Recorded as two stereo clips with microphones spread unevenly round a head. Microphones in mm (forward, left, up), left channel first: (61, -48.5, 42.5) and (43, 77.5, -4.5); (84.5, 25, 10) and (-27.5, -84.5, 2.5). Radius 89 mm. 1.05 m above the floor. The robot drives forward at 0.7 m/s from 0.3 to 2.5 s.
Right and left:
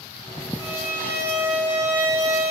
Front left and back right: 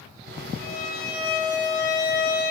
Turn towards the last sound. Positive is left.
turn(degrees=25)